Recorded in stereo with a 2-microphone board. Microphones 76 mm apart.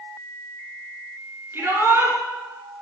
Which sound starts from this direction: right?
A shout, at 1.5 s.